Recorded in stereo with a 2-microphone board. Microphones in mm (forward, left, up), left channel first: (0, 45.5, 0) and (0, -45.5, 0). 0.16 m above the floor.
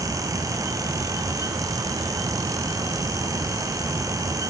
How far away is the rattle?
No rattle in this recording.